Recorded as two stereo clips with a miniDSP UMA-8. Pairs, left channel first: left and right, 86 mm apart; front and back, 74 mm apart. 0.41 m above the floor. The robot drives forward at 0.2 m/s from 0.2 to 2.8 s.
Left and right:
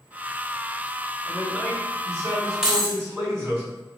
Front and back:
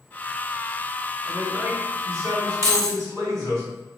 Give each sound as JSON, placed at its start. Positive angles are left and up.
{"t": 1.2, "sound": "a man speaking", "azimuth_deg": -145, "distance_m": 1.7}
{"t": 2.6, "sound": "keys jangling", "azimuth_deg": -170, "distance_m": 0.7}